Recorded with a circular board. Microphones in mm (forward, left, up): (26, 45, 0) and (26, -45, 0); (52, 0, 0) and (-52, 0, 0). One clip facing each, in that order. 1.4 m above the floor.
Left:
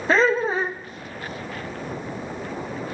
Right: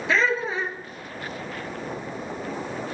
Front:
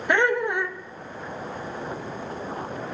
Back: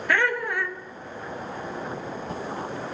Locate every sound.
0.1 s laughter: 60° left, 0.6 m